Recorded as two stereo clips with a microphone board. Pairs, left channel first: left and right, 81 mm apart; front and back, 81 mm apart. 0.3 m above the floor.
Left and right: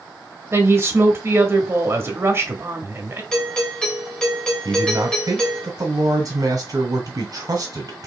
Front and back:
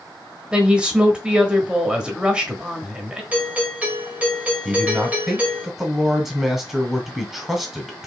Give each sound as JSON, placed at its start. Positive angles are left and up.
{"t": 0.5, "sound": "a woman speaking", "azimuth_deg": -110, "distance_m": 1.0}
{"t": 3.3, "sound": "a doorbell", "azimuth_deg": 155, "distance_m": 1.5}
{"t": 4.7, "sound": "a man speaking", "azimuth_deg": -95, "distance_m": 1.4}